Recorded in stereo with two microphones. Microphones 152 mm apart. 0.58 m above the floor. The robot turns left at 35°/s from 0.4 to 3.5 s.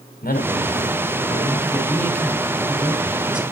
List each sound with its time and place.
0.2 s a man speaking: 75° left, 3.5 m; by 3.5 s 35° right, 3.5 m